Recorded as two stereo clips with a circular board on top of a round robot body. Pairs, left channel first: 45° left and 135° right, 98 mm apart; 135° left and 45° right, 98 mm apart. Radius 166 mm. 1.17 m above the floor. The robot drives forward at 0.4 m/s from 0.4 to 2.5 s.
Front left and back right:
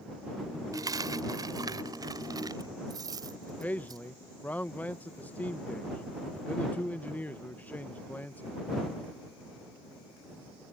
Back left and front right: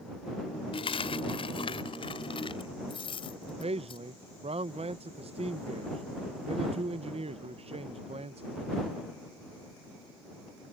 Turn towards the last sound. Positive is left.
turn(degrees=-30)